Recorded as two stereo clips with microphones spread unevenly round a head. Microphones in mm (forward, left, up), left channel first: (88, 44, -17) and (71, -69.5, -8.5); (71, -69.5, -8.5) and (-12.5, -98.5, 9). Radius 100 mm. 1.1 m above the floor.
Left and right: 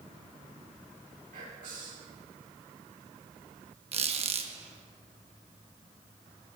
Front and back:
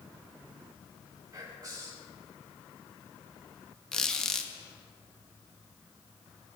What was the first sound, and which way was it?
Whispering, 110° right.